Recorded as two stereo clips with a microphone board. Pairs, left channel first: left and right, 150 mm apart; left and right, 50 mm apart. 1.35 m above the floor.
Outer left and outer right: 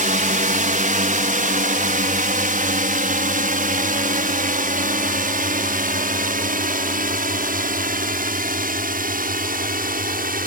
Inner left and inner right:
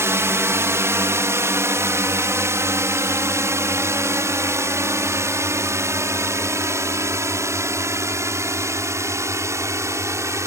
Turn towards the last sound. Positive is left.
turn(degrees=-75)  # may be behind; listen again after turning